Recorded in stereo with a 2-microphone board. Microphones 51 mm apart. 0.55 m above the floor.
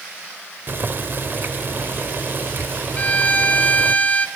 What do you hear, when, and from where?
0.7 s boiling: 45° right (ahead or behind), 1.2 m
3.0 s a violin: 30° left (ahead or behind), 1.8 m